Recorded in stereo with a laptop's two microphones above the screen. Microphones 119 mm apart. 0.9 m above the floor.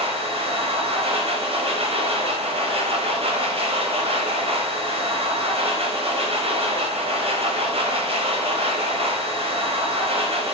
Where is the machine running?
55° right (ahead or behind), 0.7 m.